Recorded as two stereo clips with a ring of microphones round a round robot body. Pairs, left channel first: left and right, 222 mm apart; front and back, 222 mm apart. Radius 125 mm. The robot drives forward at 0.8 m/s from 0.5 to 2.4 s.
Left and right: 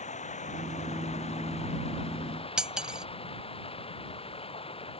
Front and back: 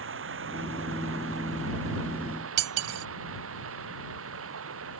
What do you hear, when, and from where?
0.0 s running water: 150° left; by 5.0 s 155° left
2.6 s cutlery clinking: 175° right